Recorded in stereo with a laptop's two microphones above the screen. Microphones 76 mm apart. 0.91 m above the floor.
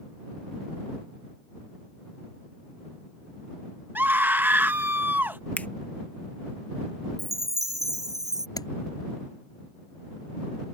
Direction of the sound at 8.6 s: 55° left (ahead or behind).